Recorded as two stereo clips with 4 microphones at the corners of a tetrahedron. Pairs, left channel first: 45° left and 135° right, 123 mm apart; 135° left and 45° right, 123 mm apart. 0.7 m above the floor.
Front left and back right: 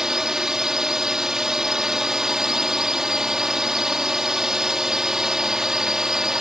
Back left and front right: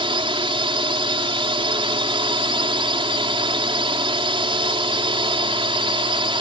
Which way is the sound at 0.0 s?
50° right.